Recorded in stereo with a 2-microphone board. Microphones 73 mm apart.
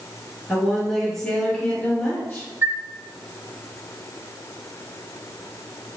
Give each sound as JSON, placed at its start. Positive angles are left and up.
{"t": 0.5, "sound": "a woman speaking", "side_deg": -5, "distance_m": 1.9}
{"t": 2.6, "sound": "a chime", "side_deg": -30, "distance_m": 0.7}